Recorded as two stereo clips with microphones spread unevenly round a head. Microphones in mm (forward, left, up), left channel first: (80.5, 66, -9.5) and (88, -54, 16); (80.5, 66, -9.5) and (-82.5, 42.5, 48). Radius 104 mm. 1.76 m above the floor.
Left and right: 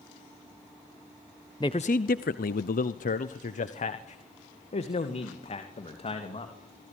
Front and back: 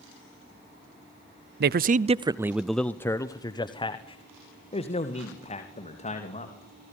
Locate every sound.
1.6 s a man speaking: 170° left, 0.7 m; by 6.5 s 60° left, 3.5 m